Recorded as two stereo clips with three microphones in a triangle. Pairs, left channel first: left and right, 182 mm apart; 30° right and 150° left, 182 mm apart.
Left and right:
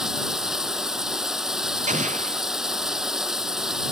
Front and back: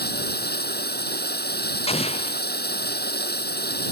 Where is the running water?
5° right.